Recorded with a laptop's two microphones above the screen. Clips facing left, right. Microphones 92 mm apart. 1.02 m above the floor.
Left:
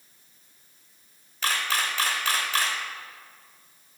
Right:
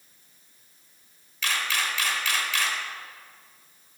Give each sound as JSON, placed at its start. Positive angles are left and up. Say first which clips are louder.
{"t": 1.4, "sound": "a camera shutter", "louder": "left 1 dB", "side_deg": 40, "distance_m": 1.0}